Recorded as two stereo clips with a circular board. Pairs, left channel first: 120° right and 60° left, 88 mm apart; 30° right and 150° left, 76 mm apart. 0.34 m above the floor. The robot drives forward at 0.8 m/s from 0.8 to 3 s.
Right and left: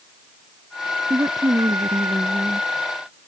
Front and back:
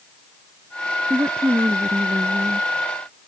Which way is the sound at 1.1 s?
105° left.